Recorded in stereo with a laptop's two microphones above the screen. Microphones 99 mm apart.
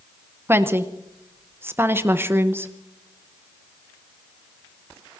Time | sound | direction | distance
0.5 | a woman speaking | 25° right (ahead or behind) | 0.7 m